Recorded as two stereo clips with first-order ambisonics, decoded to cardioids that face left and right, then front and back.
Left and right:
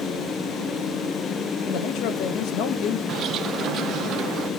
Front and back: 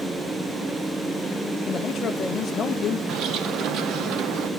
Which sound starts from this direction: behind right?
A bird, at 3.1 s.